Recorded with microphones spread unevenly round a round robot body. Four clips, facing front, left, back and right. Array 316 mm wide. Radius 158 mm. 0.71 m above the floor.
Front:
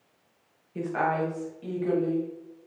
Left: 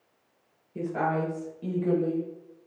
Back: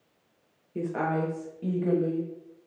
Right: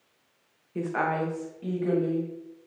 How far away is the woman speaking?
About 0.7 m.